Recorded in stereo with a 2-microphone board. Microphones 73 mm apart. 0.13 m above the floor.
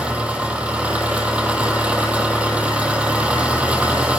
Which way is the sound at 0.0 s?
15° right (ahead or behind).